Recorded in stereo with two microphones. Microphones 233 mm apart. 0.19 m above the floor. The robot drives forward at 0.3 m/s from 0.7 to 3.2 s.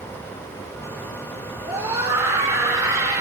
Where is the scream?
15° right (ahead or behind), 7 m.